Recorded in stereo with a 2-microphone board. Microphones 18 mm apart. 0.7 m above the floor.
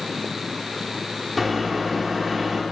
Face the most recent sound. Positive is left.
turn(degrees=-15)  # may be behind; listen again after turning